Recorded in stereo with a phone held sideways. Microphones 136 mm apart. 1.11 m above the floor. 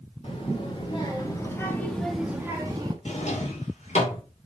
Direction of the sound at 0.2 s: 45° left (ahead or behind).